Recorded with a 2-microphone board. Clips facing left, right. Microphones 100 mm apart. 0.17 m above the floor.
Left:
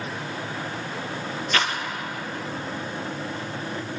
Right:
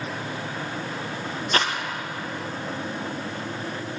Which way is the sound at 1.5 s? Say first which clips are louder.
Right 1 dB; 35° right (ahead or behind).